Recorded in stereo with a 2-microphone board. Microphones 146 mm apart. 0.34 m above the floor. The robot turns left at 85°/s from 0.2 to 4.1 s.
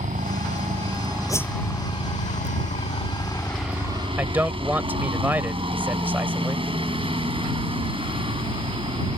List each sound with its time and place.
0.0 s a helicopter: 70° right; by 9.2 s 45° right
1.3 s a whoosh: 25° left (ahead or behind); by 1.5 s 5° left (ahead or behind)
4.2 s a man speaking: 10° right (ahead or behind)